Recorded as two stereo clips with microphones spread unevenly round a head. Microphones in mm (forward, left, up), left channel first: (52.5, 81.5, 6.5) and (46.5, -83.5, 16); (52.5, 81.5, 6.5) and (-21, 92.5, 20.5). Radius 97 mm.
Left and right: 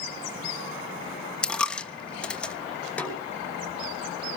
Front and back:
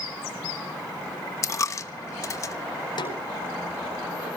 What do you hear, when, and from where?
1.4 s a dropped coin: 5° left, 0.9 m
3.0 s a snare drum: 5° left, 5.5 m